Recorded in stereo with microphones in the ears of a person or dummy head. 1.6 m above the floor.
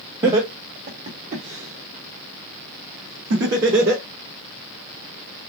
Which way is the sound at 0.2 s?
25° right (ahead or behind).